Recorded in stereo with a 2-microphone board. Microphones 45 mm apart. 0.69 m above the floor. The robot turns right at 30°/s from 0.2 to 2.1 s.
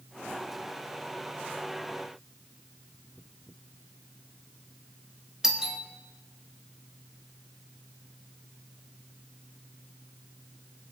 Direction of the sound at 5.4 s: 10° right (ahead or behind).